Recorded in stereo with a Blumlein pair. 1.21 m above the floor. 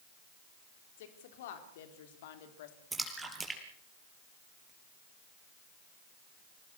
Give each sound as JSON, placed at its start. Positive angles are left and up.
{"t": 1.0, "sound": "a woman speaking", "azimuth_deg": 55, "distance_m": 4.0}
{"t": 2.9, "sound": "a splash", "azimuth_deg": -10, "distance_m": 4.5}